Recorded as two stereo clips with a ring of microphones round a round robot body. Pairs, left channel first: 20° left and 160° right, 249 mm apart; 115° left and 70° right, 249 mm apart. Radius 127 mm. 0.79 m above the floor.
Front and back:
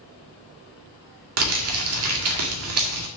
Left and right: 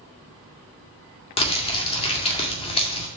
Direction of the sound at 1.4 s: Straight behind.